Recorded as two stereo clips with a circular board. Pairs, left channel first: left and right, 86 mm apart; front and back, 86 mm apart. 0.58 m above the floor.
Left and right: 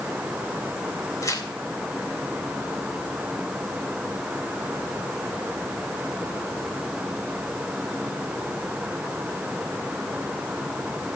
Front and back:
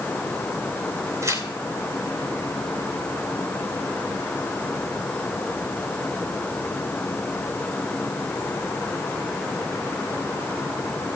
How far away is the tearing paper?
About 2 m.